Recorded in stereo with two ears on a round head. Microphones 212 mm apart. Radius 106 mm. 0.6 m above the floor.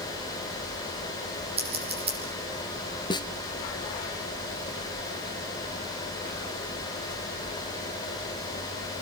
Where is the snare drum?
20° left (ahead or behind), 2 m.